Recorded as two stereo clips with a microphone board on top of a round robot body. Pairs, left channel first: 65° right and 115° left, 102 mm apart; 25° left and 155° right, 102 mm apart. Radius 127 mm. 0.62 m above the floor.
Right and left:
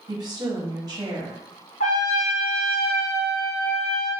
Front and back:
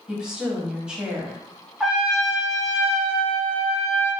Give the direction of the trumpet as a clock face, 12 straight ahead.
2 o'clock.